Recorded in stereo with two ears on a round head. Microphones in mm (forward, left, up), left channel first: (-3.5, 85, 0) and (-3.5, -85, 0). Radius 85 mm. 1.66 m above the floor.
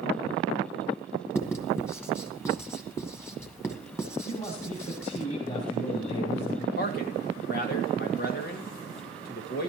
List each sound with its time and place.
1.4 s writing: 15° left (ahead or behind), 1.5 m
4.2 s a man speaking: 40° left (ahead or behind), 3 m
6.8 s a man speaking: 55° left (ahead or behind), 2.5 m